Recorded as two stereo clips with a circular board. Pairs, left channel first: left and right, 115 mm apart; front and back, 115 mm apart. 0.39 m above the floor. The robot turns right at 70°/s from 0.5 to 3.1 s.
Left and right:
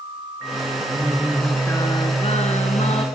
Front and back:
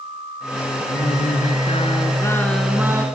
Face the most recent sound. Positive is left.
turn(degrees=120)